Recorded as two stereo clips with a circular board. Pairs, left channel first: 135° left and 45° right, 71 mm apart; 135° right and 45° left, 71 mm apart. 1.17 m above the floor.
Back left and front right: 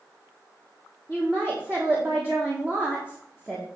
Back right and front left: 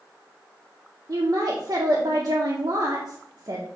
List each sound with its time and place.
1.1 s a woman speaking: 25° left, 1.2 m